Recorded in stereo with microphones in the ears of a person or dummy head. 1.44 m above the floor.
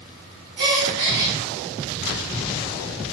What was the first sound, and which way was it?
A gasp, 55° right (ahead or behind).